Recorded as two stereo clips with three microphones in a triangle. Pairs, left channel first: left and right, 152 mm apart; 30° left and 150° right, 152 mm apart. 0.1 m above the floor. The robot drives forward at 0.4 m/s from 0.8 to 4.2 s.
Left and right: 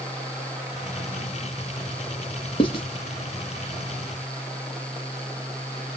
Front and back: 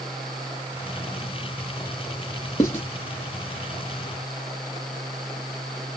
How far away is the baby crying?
No baby crying in this recording.